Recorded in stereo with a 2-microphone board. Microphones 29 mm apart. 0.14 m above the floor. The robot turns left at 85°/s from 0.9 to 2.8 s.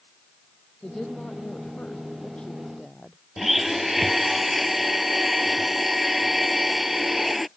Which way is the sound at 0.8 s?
170° left.